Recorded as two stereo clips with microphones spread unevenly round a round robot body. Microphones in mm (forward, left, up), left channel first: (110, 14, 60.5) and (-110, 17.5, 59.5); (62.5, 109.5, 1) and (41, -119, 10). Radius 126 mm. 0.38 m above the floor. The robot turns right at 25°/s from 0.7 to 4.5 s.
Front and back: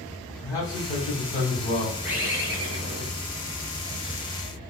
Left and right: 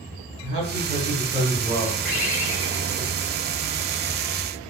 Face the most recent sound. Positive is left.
turn(degrees=155)